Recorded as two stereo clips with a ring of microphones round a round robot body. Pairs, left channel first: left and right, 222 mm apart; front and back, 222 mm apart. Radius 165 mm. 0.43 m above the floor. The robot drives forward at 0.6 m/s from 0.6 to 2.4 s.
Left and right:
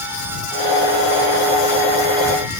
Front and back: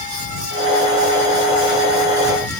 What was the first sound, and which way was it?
Only background noise.